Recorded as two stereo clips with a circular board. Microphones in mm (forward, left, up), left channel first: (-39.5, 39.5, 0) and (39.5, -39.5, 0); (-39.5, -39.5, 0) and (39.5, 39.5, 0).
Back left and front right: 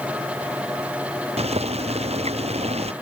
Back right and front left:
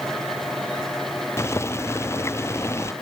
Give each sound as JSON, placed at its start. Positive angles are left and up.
{"t": 1.4, "sound": "boiling", "azimuth_deg": -70}